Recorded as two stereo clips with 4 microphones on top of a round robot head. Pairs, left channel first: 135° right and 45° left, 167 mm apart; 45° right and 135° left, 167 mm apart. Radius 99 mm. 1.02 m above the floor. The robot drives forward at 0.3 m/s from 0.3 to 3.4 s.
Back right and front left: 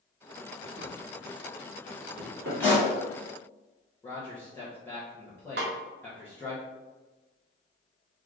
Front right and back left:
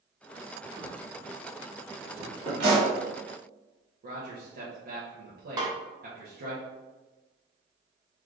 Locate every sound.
0.8 s a drawer: 45° left, 1.1 m; by 2.5 s 75° left, 0.9 m
2.6 s a pop: 145° left, 1.4 m; by 2.9 s 150° left, 1.5 m
4.0 s a man speaking: 150° left, 0.8 m
5.6 s a snare drum: 70° left, 0.5 m